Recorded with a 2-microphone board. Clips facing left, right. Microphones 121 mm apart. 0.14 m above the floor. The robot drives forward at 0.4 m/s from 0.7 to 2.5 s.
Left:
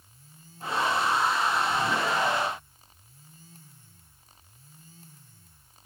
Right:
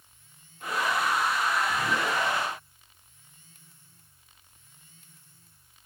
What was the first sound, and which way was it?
Only background noise.